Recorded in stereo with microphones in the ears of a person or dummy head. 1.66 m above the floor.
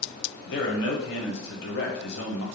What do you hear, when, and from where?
0.5 s a man speaking: 70° left (ahead or behind), 0.9 m